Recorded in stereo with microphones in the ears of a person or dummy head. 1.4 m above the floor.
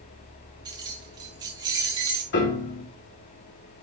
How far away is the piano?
About 2.5 m.